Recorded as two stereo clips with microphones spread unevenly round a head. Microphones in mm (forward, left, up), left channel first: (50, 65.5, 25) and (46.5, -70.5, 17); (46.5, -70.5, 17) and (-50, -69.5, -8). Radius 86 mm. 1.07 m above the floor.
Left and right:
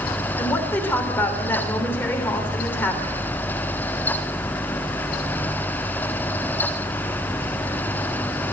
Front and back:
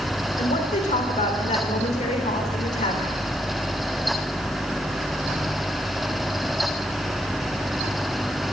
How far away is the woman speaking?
About 3.5 m.